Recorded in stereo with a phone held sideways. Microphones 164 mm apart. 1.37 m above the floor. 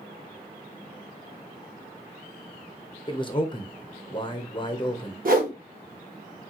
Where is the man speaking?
30° left (ahead or behind), 0.6 m.